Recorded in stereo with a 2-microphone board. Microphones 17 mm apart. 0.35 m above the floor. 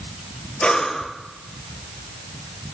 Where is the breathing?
60° left (ahead or behind), 1.1 m.